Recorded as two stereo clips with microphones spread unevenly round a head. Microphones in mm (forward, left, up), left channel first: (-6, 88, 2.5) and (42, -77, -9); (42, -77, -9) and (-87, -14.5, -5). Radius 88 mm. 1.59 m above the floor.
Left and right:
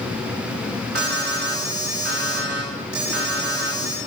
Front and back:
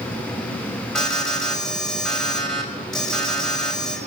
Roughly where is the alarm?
Behind right.